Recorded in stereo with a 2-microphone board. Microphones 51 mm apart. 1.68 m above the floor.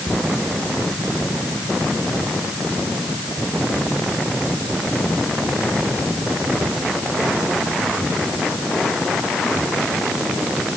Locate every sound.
Only background noise.